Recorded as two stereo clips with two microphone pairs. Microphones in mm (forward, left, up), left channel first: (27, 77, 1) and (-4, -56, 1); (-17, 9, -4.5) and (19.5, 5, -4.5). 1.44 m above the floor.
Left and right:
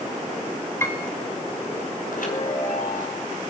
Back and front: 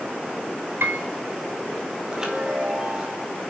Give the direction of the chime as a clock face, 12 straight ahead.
10 o'clock.